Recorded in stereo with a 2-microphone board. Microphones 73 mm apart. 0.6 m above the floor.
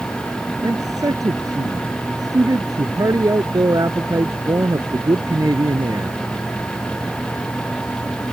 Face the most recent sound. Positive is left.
turn(degrees=-55)  # may be behind; listen again after turning